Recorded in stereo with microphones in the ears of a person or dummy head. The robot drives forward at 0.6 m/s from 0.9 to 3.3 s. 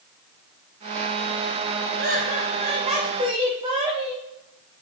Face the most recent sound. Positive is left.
turn(degrees=-25)  # may be behind; listen again after turning